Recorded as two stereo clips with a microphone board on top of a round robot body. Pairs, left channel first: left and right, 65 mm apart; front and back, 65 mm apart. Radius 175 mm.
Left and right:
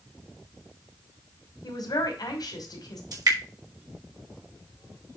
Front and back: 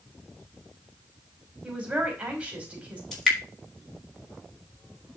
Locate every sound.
1.6 s a man speaking: 110° left, 3 m
3.1 s dripping: 80° right, 4 m